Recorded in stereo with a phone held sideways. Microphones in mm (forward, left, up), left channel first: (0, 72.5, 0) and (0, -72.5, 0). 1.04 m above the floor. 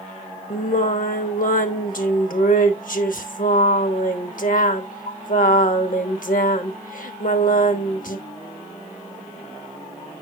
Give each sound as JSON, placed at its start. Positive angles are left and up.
{"t": 0.5, "sound": "singing", "side_deg": 70, "distance_m": 0.9}